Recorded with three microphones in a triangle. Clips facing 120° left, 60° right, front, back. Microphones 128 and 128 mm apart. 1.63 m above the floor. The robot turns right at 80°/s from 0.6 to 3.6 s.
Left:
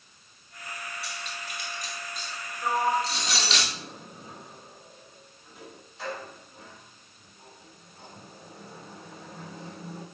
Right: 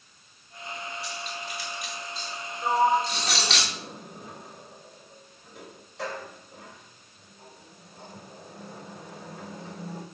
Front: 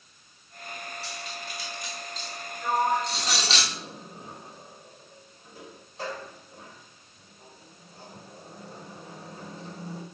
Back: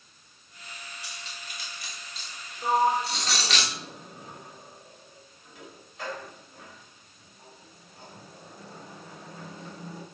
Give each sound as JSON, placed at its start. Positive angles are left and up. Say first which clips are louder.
{"t": 1.0, "sound": "cutlery clinking", "louder": "right 3 dB, front 6 dB", "azimuth_deg": 105, "distance_m": 3.0}
{"t": 2.6, "sound": "a sliding door", "louder": "right 3 dB, back 2 dB", "azimuth_deg": -130, "distance_m": 2.0}